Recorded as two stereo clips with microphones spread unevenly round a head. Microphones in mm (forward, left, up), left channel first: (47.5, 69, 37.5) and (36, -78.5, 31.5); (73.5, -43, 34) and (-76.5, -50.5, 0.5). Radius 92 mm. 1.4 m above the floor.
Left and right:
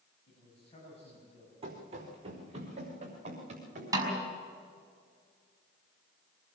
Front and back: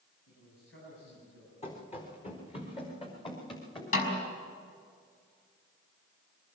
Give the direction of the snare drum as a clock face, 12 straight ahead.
1 o'clock.